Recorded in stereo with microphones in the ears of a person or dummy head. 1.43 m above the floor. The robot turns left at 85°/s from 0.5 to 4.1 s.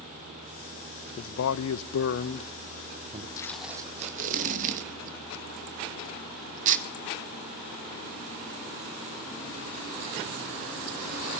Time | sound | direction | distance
1.2 | a man speaking | 140° left | 0.8 m
3.4 | tape being pulled | 20° left (ahead or behind) | 2 m